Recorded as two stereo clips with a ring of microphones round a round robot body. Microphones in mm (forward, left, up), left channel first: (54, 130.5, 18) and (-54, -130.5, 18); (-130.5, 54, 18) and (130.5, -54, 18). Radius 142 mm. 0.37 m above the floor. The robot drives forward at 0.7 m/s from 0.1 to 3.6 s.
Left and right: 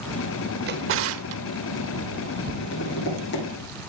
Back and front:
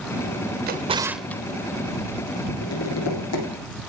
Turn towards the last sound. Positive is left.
turn(degrees=125)